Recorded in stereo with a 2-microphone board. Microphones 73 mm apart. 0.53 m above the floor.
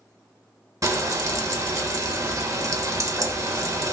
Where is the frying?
45° right (ahead or behind), 0.6 m.